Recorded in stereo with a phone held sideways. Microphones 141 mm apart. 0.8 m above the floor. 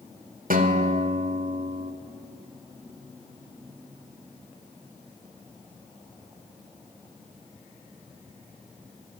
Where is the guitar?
85° right, 1.8 m.